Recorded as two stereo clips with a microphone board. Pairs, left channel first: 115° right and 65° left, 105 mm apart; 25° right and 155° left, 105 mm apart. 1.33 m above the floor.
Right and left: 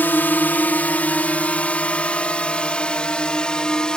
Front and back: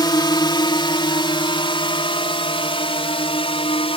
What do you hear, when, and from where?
0.0 s a drone: 45° right; by 4.0 s 30° right